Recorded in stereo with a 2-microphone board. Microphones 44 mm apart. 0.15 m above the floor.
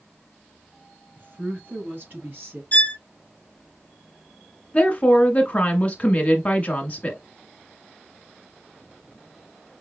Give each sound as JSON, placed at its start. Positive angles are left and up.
{"t": 1.2, "sound": "a woman speaking", "side_deg": -45, "distance_m": 1.7}
{"t": 2.7, "sound": "a violin", "side_deg": 25, "distance_m": 1.2}
{"t": 4.7, "sound": "a woman speaking", "side_deg": 30, "distance_m": 1.4}